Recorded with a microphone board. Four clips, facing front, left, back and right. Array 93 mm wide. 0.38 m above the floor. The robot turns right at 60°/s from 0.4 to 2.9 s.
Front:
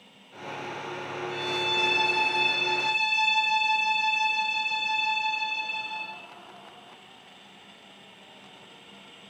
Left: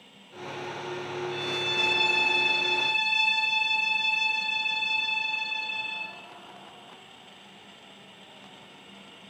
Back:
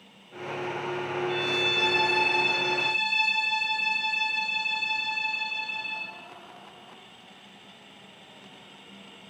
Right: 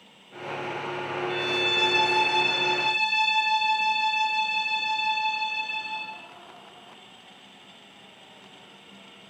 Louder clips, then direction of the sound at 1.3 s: Right 4 dB, back 2 dB; 145° right.